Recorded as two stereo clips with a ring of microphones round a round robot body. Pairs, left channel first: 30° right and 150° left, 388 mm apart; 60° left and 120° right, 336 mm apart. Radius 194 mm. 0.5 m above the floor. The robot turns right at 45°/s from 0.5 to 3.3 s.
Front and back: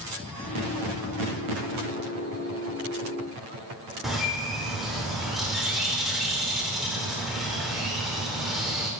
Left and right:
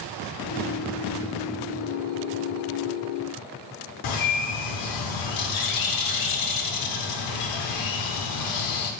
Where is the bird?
60° left, 0.9 m.